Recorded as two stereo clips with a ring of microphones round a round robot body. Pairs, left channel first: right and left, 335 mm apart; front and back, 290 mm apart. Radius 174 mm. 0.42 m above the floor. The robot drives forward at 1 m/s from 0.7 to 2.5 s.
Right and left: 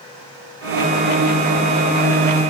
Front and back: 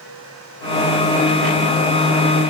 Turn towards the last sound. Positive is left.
No sound to turn to.